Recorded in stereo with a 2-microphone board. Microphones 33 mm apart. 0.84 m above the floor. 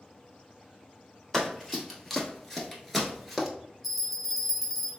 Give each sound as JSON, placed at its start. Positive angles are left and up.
{"t": 1.3, "sound": "running footsteps", "side_deg": 10, "distance_m": 1.2}
{"t": 3.8, "sound": "a bell", "side_deg": 0, "distance_m": 0.6}